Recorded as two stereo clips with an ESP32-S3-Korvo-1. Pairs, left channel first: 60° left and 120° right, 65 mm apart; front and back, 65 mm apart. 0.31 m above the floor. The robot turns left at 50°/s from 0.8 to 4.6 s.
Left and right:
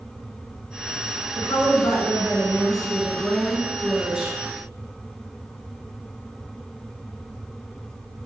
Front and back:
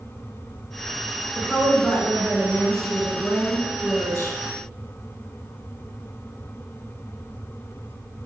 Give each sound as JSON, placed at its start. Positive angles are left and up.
{"t": 1.4, "sound": "a woman speaking", "azimuth_deg": 95, "distance_m": 3.0}